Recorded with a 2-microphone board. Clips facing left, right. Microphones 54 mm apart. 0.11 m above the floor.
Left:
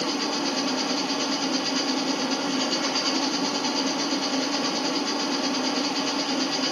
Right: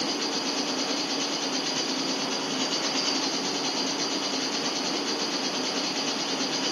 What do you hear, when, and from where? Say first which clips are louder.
0.0 s an insect: left 3 dB; 10° left (ahead or behind), 1.4 m